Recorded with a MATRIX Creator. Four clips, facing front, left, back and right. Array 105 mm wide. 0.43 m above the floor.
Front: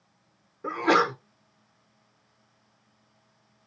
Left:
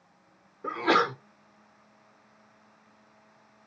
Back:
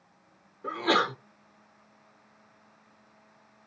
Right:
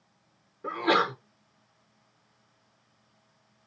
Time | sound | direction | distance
0.6 | a sneeze | 15° left | 0.8 m